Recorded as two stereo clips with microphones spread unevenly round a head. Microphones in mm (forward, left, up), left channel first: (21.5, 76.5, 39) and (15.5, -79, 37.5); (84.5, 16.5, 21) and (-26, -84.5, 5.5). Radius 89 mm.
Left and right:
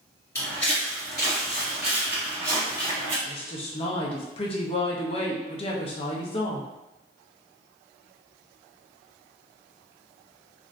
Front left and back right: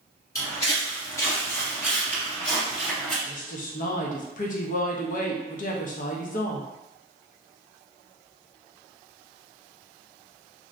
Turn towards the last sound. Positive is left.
turn(degrees=40)